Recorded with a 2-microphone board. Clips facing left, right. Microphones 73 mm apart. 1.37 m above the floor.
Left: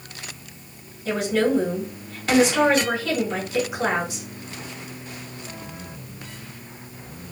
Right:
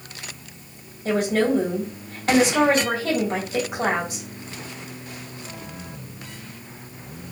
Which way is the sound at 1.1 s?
50° right (ahead or behind).